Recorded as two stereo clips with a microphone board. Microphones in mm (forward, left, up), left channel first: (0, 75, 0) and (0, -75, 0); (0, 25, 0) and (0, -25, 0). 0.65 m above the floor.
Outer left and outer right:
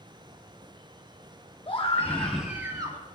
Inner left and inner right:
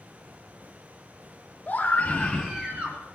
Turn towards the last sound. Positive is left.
turn(degrees=-30)  # may be behind; listen again after turning